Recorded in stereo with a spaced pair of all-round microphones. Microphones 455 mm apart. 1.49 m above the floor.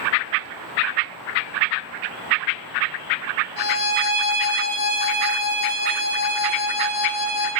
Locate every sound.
3.6 s a violin: 50° left (ahead or behind), 4 m